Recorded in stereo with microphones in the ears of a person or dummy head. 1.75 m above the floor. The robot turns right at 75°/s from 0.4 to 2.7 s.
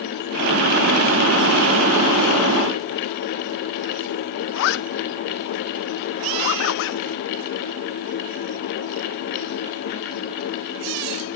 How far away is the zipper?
About 0.9 m.